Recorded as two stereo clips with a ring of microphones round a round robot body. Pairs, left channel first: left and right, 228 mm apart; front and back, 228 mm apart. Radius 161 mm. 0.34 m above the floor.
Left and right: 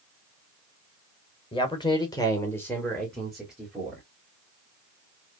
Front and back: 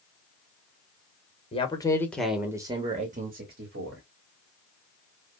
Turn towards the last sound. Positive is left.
turn(degrees=-170)